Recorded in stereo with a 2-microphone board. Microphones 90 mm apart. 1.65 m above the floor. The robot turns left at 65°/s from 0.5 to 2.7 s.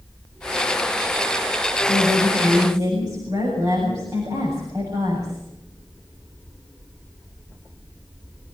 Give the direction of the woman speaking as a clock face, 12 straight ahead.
3 o'clock.